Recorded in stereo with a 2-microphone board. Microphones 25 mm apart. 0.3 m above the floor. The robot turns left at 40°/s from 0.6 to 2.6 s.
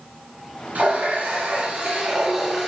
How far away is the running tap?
About 1.9 m.